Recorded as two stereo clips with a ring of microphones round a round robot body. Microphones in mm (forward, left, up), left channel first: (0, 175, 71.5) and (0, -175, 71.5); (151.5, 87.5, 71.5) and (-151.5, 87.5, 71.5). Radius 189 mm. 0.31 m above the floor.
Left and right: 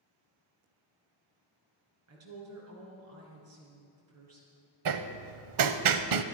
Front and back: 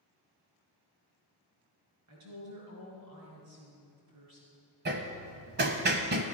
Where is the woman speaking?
140° right, 4.5 m.